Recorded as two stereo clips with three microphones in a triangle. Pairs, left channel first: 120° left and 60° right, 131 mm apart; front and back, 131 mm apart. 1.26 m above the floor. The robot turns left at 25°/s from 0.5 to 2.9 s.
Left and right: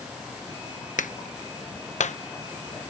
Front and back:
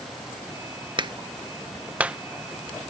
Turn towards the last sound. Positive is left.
turn(degrees=80)